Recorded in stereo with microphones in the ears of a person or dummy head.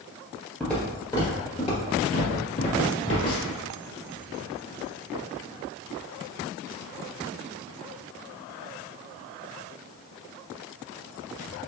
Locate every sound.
0.6 s footsteps: 5° left (ahead or behind), 1.8 m; by 3.6 s 40° left (ahead or behind), 3 m